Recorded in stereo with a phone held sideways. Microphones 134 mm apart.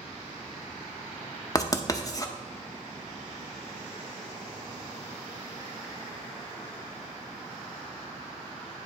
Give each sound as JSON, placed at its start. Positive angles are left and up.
{"t": 1.6, "sound": "writing", "side_deg": 25, "distance_m": 0.5}